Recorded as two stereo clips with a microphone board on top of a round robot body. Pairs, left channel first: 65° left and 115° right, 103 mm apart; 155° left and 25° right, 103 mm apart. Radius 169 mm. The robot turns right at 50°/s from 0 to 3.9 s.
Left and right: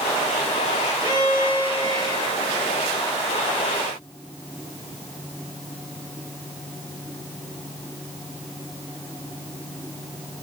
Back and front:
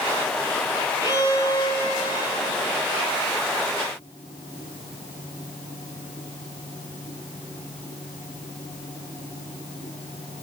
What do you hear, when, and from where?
1.0 s a violin: 70° right, 7.5 m; by 2.5 s straight ahead, 7.5 m